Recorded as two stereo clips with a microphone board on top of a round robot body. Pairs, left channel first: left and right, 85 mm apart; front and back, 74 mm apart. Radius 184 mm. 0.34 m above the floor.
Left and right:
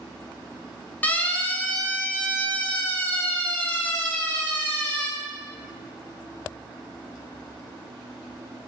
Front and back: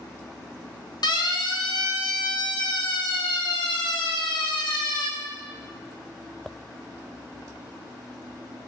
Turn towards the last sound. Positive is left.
turn(degrees=15)